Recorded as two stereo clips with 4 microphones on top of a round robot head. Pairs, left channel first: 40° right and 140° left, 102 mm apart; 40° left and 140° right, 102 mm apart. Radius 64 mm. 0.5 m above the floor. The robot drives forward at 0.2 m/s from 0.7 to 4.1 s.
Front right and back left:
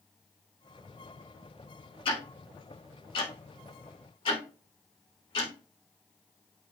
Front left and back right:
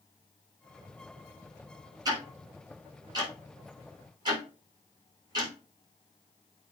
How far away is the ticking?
About 5 m.